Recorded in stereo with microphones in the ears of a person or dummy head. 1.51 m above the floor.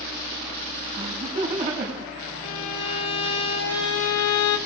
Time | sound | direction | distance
0.9 | laughter | 35° right (ahead or behind) | 7 m
2.4 | a violin | 75° left (ahead or behind) | 3 m